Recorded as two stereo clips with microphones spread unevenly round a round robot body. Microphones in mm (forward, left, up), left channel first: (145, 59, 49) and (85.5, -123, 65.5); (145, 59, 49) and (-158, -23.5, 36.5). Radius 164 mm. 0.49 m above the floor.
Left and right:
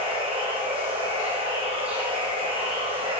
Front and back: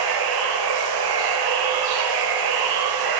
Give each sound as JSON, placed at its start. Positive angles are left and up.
{"t": 0.0, "sound": "running water", "azimuth_deg": 180, "distance_m": 0.9}